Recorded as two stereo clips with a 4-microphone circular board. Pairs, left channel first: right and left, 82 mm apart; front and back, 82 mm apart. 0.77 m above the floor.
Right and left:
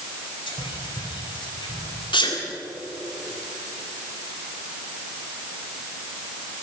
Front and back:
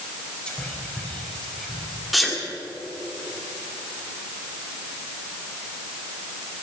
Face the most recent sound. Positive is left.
turn(degrees=-90)